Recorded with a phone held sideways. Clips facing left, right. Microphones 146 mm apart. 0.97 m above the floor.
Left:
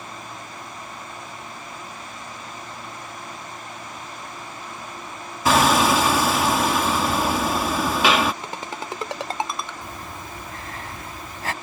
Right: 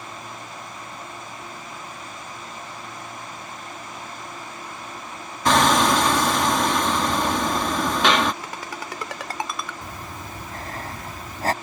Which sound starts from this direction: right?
Breathing, at 9.8 s.